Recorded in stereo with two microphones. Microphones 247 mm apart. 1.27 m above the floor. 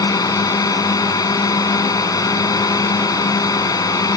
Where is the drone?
15° left (ahead or behind).